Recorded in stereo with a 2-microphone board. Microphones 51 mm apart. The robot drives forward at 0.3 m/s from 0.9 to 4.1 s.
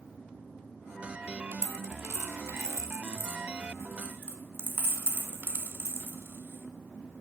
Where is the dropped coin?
65° right (ahead or behind), 0.8 m; by 7.2 s 45° right (ahead or behind), 1.0 m.